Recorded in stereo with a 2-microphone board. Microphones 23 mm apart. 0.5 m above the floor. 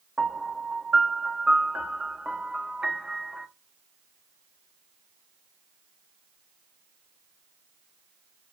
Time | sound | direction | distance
0.2 | a piano | 40° right (ahead or behind) | 0.6 m